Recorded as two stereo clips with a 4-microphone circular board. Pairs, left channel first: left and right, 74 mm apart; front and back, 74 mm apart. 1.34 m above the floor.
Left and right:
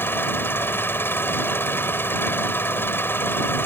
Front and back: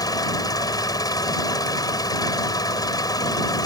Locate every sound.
0.0 s an engine running: 30° left